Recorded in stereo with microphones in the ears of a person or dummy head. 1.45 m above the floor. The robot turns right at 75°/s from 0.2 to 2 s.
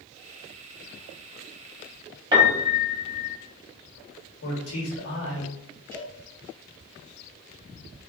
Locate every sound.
2.3 s a piano: 20° right (ahead or behind), 0.6 m
4.4 s a man speaking: 90° left, 1.3 m
5.9 s a cowbell: 10° left (ahead or behind), 2.0 m